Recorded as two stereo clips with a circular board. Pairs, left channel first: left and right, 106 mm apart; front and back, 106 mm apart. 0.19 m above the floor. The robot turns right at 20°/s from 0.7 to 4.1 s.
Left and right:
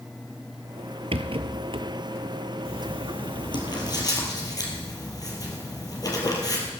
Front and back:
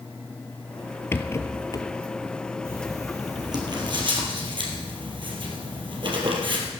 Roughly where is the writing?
Behind left.